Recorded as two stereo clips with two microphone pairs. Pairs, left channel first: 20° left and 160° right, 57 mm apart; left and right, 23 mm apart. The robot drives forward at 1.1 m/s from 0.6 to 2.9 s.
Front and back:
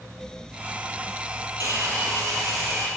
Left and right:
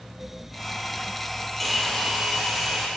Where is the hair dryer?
Straight behind, 1.0 m.